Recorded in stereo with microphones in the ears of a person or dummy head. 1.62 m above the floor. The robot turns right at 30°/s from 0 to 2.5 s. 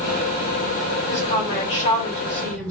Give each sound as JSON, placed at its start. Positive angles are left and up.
{"t": 1.1, "sound": "a woman speaking", "azimuth_deg": 120, "distance_m": 1.9}